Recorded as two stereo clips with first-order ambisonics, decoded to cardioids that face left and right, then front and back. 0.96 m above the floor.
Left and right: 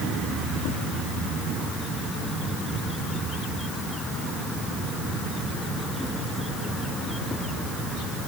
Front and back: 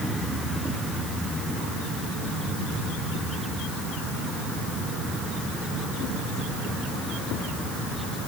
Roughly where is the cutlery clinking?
No cutlery clinking in this recording.